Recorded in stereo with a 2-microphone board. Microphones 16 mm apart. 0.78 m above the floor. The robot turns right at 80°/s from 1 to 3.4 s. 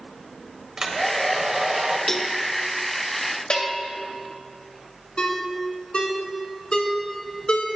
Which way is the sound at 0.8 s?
135° right.